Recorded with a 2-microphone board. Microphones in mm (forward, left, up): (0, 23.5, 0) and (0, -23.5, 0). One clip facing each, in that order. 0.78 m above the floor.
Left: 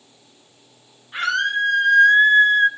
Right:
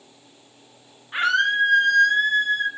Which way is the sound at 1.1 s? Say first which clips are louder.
Right 1 dB; 20° right (ahead or behind).